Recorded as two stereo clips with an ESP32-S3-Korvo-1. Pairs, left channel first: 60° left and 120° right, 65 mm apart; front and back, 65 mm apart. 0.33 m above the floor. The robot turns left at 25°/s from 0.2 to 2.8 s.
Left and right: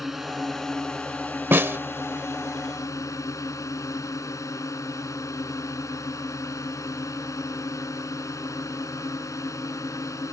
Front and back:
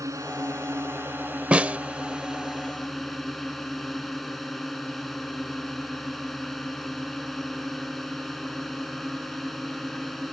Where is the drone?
155° left; by 10.3 s 90° left.